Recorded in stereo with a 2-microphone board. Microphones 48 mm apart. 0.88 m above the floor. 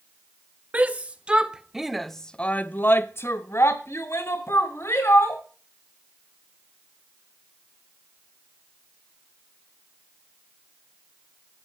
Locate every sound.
0.7 s a shout: 30° right (ahead or behind), 1.2 m; by 5.4 s 70° left (ahead or behind), 1.9 m